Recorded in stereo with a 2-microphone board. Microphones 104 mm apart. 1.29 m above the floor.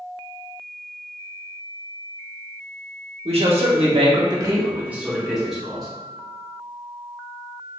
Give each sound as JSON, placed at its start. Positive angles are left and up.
{"t": 3.2, "sound": "a man speaking", "side_deg": -75, "distance_m": 1.4}